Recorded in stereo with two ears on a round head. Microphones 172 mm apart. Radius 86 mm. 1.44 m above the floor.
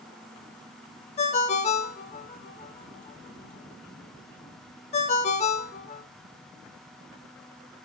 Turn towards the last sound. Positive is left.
turn(degrees=35)  # may be behind; listen again after turning